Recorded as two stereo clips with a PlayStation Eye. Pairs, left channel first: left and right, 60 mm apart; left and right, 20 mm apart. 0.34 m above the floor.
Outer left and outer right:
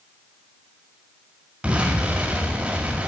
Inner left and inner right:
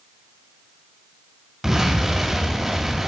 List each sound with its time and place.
1.6 s an explosion: 15° right (ahead or behind), 2 m